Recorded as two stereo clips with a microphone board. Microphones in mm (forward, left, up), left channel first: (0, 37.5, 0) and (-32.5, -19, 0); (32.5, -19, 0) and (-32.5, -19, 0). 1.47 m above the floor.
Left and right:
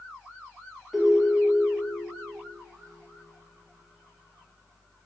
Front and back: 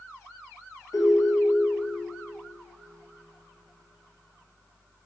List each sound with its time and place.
0.9 s a ringtone: 35° right, 1.4 m